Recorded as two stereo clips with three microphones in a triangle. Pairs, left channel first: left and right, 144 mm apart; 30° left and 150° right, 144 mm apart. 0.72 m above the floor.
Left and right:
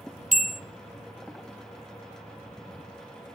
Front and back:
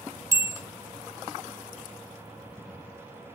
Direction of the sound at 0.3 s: 80° right.